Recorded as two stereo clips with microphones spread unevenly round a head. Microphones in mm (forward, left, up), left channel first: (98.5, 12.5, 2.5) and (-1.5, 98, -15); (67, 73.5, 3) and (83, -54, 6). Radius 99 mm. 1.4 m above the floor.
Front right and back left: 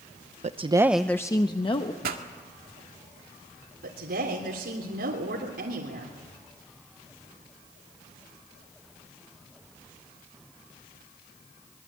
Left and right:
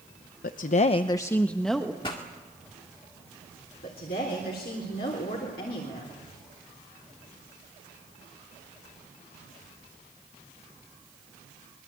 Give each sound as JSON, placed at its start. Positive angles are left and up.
{"t": 0.4, "sound": "a woman speaking", "azimuth_deg": 105, "distance_m": 0.8}
{"t": 2.0, "sound": "a pop", "azimuth_deg": 165, "distance_m": 1.8}
{"t": 3.8, "sound": "a woman speaking", "azimuth_deg": 140, "distance_m": 3.5}